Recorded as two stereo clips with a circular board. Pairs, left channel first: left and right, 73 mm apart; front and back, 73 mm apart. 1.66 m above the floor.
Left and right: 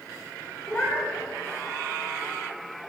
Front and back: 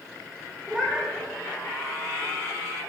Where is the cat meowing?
110° left, 1.4 m.